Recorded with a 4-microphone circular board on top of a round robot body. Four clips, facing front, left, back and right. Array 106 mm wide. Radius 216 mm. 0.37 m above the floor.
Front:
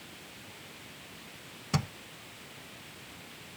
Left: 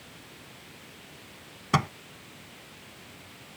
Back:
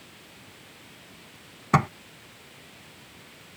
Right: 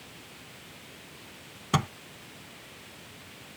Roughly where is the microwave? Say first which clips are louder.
Left 2 dB, back 11 dB; behind.